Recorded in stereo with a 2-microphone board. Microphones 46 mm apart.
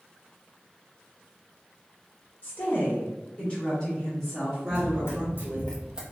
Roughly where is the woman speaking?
Left.